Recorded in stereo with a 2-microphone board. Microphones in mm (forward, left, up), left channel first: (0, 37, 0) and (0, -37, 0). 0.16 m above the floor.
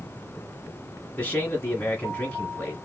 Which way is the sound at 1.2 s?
15° left (ahead or behind).